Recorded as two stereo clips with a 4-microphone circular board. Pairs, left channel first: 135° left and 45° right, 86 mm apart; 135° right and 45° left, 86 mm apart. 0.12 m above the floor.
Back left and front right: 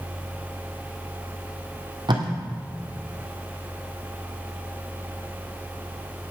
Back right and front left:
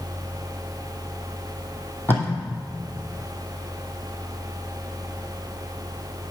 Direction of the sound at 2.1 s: 70° right.